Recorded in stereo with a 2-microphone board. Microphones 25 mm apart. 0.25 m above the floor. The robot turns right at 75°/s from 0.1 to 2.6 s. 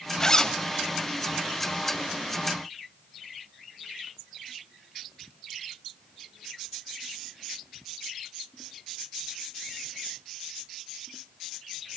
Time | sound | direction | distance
0.2 | a zipper | 20° left (ahead or behind) | 1.5 m